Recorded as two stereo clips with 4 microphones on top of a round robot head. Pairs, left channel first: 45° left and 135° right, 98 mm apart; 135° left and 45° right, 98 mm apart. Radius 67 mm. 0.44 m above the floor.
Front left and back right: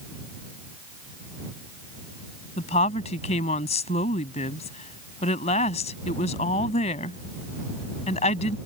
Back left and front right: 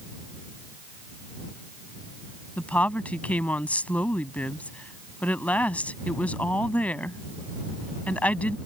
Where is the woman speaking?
60° left.